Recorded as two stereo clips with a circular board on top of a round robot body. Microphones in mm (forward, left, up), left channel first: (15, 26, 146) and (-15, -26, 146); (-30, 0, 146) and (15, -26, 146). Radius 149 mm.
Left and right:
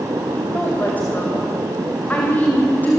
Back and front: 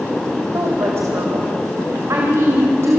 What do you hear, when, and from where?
0.5 s a woman speaking: straight ahead, 2.5 m